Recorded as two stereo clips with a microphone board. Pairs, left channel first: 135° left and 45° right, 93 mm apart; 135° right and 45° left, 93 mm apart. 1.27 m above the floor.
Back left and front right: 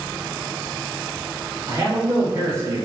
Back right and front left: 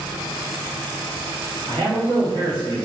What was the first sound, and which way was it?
A man speaking, 15° left.